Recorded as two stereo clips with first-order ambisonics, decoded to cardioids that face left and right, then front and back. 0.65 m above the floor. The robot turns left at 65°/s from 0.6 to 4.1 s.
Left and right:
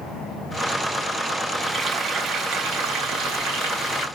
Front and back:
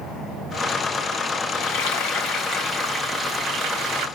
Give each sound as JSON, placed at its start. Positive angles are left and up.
{"t": 1.5, "sound": "frying", "azimuth_deg": 10, "distance_m": 3.0}